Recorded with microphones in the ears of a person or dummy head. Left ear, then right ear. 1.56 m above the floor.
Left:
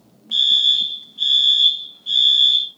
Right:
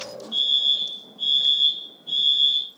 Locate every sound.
0.3 s a fire alarm: 75° left (ahead or behind), 3 m